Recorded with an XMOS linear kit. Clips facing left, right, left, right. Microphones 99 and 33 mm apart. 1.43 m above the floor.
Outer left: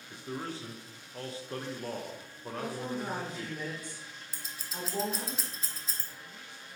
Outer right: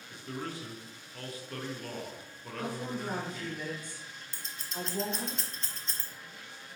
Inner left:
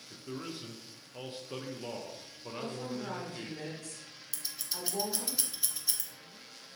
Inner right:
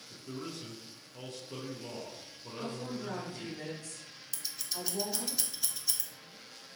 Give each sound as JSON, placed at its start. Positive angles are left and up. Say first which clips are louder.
{"t": 0.1, "sound": "a man speaking", "louder": "outer left 1 dB, inner left 1 dB", "side_deg": 25, "distance_m": 0.6}
{"t": 2.5, "sound": "a woman speaking", "louder": "outer left 1 dB, inner left 1 dB", "side_deg": 90, "distance_m": 1.7}
{"t": 4.3, "sound": "scissors", "louder": "outer right 2 dB, inner right 1 dB", "side_deg": 5, "distance_m": 0.5}